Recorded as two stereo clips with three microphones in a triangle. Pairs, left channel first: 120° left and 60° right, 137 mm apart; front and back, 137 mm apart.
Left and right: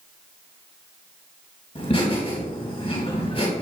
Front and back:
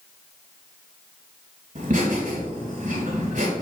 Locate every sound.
1.8 s laughter: 155° left, 4 m